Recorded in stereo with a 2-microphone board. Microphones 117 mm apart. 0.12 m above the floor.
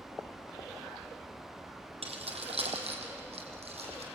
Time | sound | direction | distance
2.0 | keys jangling | 60° right (ahead or behind) | 3.5 m